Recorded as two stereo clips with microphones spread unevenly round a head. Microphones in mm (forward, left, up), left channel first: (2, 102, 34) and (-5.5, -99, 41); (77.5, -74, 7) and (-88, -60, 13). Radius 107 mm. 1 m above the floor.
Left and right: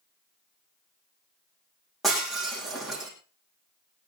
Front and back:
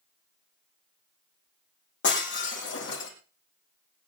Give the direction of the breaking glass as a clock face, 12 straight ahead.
12 o'clock.